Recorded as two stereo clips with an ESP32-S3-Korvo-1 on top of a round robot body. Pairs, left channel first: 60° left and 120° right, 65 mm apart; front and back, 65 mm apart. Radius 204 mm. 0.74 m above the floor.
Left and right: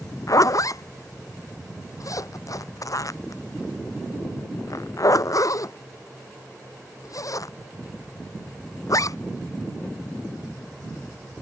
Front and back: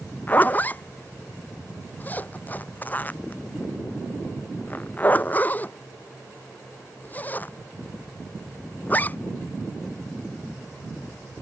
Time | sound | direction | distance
0.3 | a zipper | 60° left | ?